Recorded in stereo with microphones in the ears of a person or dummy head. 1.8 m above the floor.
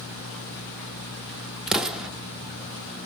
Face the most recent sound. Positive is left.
turn(degrees=0)  # may be behind; listen again after turning